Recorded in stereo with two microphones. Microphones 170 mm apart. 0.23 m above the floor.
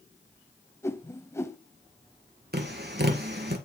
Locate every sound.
0.8 s a whoosh: 15° left (ahead or behind), 0.8 m
2.5 s tapping: 75° right (ahead or behind), 2 m